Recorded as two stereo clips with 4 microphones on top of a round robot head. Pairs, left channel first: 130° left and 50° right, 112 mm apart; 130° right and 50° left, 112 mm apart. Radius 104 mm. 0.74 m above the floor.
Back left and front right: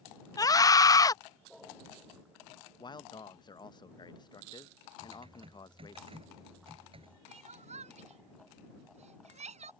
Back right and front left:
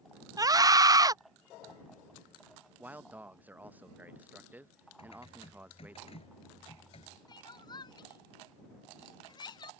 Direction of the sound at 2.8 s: 120° left.